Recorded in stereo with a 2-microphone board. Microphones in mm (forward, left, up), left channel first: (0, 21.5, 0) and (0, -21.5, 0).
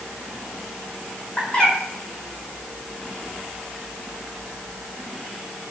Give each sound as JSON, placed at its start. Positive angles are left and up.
{"t": 1.4, "sound": "a bird", "side_deg": 30, "distance_m": 1.6}